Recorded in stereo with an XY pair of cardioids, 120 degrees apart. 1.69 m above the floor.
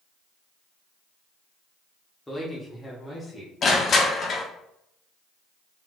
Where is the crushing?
45° left, 1.0 m.